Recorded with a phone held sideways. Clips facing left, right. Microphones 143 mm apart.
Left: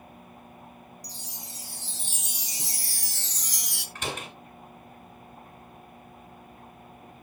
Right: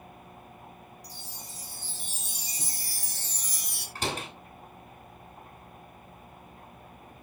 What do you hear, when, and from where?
1.0 s a chime: 85° left, 1.5 m
4.0 s a door slam: 35° right (ahead or behind), 5.5 m